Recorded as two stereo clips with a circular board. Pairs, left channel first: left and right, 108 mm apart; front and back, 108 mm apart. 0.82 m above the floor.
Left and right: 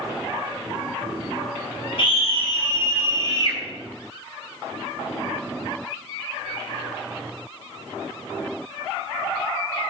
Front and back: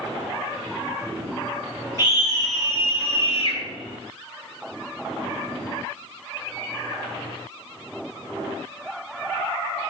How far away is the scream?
About 6 m.